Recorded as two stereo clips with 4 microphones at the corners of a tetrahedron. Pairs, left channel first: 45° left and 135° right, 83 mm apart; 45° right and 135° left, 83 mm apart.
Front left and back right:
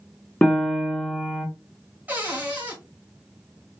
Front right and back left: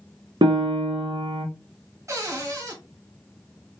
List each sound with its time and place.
0.4 s a piano: 115° left, 1.0 m
2.1 s a cupboard door: 160° left, 1.3 m